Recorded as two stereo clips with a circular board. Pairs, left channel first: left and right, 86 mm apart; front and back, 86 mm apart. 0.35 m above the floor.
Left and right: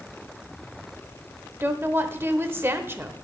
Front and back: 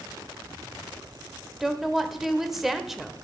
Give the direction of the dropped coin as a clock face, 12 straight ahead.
No dropped coin in this recording.